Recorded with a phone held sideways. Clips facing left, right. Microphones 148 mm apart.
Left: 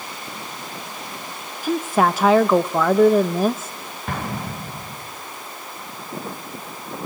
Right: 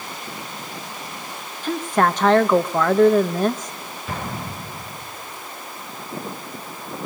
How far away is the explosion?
About 5 m.